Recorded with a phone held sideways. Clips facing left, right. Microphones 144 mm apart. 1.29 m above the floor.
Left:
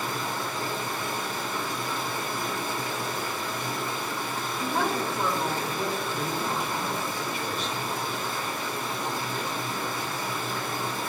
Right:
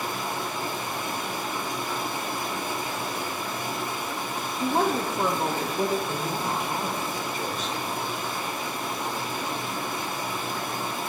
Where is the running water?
20° right (ahead or behind), 2 m.